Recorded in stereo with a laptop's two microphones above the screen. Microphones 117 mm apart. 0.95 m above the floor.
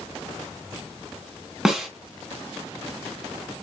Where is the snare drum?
5° right (ahead or behind), 1.6 m.